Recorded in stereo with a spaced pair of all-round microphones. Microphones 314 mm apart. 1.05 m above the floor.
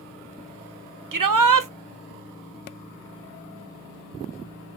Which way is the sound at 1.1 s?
85° right.